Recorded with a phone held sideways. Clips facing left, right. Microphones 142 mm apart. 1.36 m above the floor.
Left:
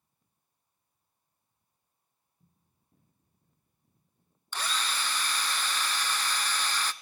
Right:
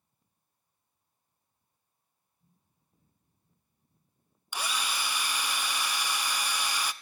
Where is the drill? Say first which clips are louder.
Even; 10° right (ahead or behind), 0.6 m.